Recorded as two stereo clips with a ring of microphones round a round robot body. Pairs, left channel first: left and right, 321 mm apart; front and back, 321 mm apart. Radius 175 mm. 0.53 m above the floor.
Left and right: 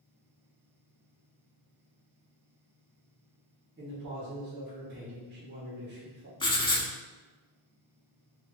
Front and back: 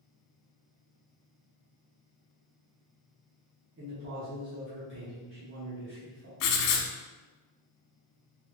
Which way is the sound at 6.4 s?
15° left.